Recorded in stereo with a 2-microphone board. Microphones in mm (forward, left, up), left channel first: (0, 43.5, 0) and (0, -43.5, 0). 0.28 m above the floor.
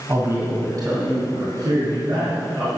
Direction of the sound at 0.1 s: 30° right (ahead or behind).